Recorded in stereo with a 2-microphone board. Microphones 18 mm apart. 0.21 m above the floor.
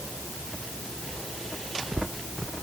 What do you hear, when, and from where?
Only background noise.